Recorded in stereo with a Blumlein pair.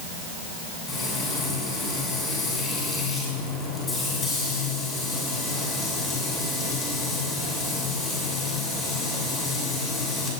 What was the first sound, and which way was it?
Frying, 15° left.